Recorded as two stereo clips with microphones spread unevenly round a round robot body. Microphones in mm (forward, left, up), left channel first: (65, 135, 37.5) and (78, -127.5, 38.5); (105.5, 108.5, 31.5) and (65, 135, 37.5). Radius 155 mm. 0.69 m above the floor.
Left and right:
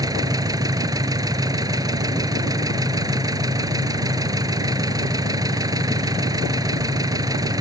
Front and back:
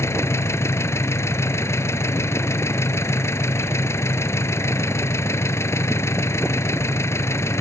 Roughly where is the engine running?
Ahead.